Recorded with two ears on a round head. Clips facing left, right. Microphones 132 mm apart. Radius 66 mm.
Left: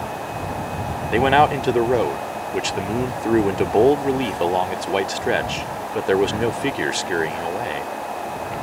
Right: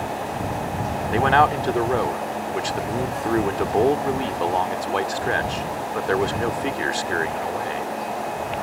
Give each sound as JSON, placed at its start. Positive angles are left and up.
{"t": 1.1, "sound": "a man speaking", "side_deg": 25}